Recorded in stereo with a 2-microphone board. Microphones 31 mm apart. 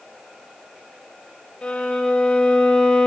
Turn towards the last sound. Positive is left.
turn(degrees=35)  # may be behind; listen again after turning